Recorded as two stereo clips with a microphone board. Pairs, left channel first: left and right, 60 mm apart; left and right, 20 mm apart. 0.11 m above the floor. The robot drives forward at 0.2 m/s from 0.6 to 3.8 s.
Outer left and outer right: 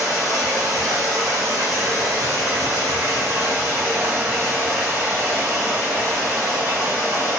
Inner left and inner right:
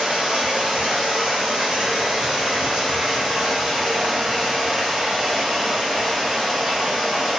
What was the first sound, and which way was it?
Running water, 75° right (ahead or behind).